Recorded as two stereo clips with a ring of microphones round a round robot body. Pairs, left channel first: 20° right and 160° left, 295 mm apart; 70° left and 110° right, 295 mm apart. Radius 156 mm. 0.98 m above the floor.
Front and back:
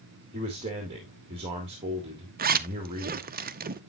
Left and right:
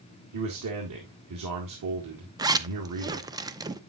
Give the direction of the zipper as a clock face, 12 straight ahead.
6 o'clock.